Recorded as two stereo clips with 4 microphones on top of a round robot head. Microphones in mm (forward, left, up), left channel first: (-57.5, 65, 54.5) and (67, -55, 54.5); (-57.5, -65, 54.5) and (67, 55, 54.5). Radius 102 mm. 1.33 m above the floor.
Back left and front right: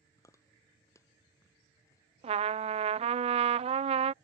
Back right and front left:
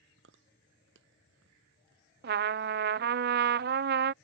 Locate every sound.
0.2 s chewing: 60° left
2.2 s a trumpet: 10° left